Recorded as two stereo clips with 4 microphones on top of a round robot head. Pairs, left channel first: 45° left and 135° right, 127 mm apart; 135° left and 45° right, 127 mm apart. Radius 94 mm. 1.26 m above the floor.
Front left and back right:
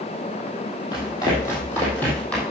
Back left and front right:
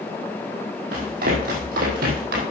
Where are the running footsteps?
20° right, 3 m; by 2.4 s 40° right, 3 m.